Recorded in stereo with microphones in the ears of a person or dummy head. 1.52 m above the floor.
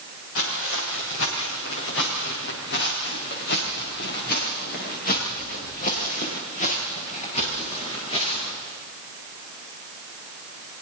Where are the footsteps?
80° left, 8 m; by 8.6 s 30° left (ahead or behind), 8.5 m.